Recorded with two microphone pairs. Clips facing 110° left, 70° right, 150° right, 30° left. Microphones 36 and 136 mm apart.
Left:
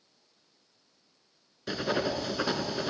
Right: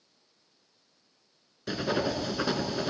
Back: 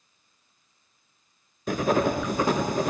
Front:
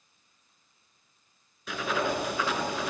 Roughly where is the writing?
Behind.